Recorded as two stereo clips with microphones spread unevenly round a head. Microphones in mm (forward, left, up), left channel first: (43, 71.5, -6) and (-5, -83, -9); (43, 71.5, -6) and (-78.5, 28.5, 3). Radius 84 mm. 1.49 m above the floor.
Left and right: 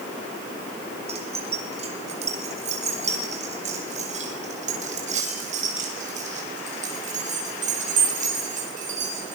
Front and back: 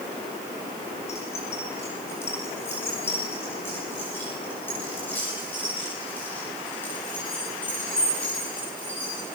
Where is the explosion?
No explosion in this recording.